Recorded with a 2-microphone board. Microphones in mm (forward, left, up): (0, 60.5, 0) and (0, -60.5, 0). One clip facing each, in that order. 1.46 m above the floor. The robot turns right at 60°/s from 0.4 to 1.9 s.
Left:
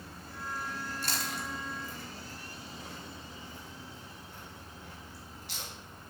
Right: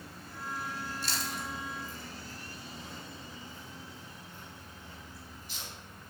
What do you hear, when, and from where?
1.0 s chewing: 50° left (ahead or behind), 2.5 m; by 5.7 s 75° left (ahead or behind), 2.5 m